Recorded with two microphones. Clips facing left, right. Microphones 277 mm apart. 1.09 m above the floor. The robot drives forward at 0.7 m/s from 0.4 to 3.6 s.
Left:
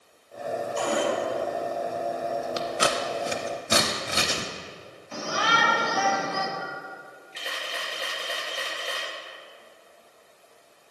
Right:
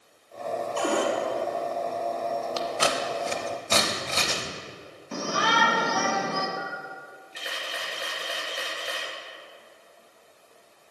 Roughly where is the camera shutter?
Centre.